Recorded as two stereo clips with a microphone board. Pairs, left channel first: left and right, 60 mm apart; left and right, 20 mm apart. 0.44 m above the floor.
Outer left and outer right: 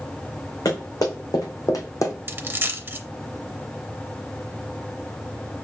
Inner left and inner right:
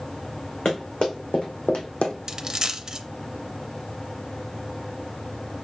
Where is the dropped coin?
35° right (ahead or behind), 0.5 m.